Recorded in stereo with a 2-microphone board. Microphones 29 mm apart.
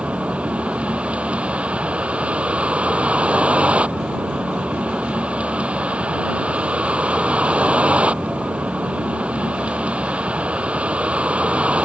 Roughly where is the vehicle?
Right.